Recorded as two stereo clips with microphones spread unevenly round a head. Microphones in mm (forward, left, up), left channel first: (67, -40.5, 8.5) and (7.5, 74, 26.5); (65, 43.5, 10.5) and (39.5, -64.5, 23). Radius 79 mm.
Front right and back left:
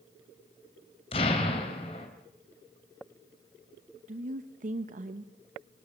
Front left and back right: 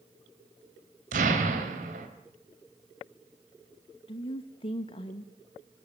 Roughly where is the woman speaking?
Left.